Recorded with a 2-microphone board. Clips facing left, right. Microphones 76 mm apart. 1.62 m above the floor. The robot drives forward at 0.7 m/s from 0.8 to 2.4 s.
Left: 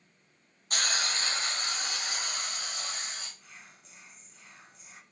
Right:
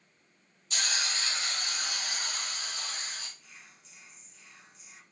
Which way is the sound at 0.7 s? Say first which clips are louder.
Left 2 dB; 50° left (ahead or behind).